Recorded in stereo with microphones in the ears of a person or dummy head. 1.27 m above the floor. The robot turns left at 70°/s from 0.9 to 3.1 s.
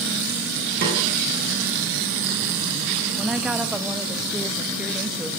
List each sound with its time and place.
0.8 s a snare drum: 50° right (ahead or behind), 8 m; by 1.0 s 40° right (ahead or behind), 8 m
3.2 s a woman speaking: 5° right (ahead or behind), 1.7 m